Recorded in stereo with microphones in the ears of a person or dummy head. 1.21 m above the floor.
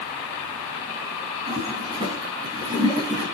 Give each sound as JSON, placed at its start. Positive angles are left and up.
{"t": 1.5, "sound": "a toilet flushing", "side_deg": -25, "distance_m": 4.0}